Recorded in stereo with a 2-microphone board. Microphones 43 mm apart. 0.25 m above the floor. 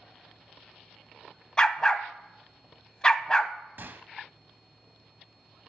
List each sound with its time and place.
1.6 s a dog barking: 20° left (ahead or behind), 0.5 m
3.8 s a gunshot: 50° right (ahead or behind), 0.6 m